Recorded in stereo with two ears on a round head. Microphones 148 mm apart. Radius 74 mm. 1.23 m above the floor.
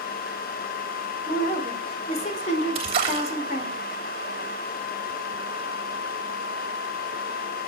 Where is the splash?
35° right (ahead or behind), 3 m.